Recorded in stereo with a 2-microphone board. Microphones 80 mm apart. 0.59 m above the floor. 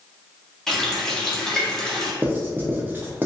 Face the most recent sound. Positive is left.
turn(degrees=-25)  # may be behind; listen again after turning